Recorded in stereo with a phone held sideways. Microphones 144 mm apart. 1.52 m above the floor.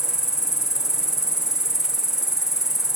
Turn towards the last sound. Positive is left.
turn(degrees=-5)  # may be behind; listen again after turning